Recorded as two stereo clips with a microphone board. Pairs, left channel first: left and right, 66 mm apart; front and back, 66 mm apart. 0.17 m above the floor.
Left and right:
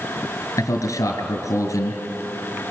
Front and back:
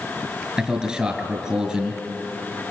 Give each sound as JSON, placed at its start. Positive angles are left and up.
{"t": 0.6, "sound": "a man speaking", "azimuth_deg": 105, "distance_m": 2.5}